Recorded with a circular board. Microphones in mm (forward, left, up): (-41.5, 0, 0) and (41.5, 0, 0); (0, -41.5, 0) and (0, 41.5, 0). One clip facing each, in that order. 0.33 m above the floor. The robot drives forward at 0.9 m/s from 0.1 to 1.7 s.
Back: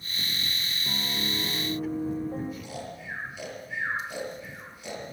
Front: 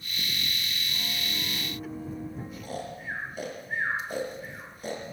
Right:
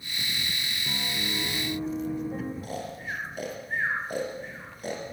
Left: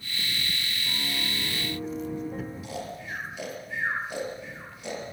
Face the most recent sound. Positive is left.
turn(degrees=-45)